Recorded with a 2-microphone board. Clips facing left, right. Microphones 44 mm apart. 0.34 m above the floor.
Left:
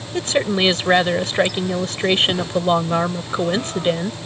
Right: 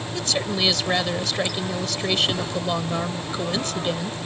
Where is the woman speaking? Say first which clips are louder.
Left 7 dB; 35° left (ahead or behind).